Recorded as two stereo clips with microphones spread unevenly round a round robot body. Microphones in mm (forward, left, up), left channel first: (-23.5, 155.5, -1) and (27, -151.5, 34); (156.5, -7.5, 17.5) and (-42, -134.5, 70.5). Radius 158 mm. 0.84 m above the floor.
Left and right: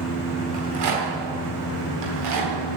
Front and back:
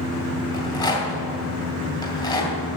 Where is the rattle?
40° right, 3 m.